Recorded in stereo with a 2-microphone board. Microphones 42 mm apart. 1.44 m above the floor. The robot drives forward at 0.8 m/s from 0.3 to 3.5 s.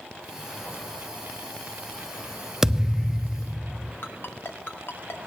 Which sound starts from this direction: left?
A ringtone, at 4.0 s.